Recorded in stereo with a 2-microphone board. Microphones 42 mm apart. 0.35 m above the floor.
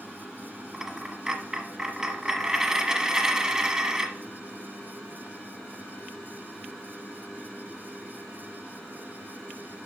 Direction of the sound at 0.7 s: 15° right (ahead or behind).